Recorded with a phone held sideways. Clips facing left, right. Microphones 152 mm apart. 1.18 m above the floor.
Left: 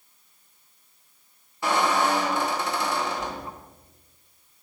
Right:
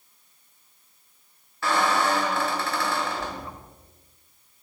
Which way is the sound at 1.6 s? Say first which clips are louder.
Left 1 dB; 20° left (ahead or behind).